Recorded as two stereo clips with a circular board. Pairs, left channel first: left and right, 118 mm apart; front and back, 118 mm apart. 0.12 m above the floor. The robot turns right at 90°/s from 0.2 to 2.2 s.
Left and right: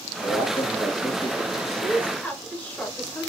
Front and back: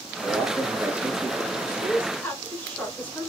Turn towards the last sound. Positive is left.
turn(degrees=50)